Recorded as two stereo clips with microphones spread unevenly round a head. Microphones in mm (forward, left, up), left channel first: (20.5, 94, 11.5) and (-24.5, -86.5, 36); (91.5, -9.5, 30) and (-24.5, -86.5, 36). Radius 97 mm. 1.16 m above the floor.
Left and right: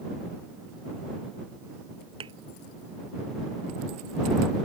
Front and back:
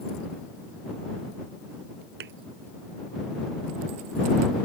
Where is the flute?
I don't hear a flute.